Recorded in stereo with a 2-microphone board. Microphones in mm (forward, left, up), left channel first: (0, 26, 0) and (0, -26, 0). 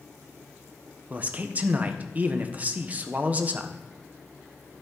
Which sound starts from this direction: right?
A man speaking, at 1.1 s.